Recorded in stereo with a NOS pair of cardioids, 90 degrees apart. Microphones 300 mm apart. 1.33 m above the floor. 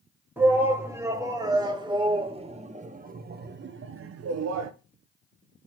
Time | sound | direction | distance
0.4 | a shout | 5° right | 2.5 m